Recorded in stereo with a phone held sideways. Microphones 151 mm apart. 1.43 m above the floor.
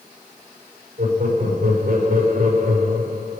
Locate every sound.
1.0 s laughter: 75° right (ahead or behind), 5.5 m